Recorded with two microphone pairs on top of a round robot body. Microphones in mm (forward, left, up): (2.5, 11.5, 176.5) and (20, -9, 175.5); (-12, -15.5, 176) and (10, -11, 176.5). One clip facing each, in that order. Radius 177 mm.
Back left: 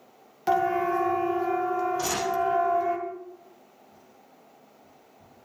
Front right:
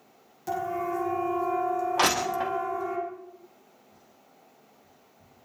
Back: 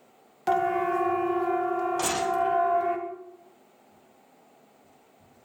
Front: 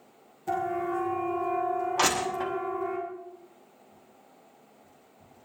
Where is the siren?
175° left, 2.5 m; by 3.0 s 160° right, 3.5 m.